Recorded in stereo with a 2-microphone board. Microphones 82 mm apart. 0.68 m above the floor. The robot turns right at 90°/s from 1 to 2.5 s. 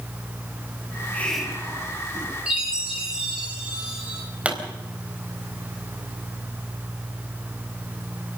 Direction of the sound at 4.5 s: 15° right (ahead or behind).